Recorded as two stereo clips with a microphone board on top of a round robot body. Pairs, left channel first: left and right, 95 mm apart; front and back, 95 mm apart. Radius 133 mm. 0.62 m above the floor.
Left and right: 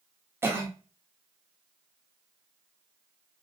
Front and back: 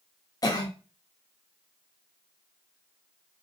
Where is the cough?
35° right, 1.0 m.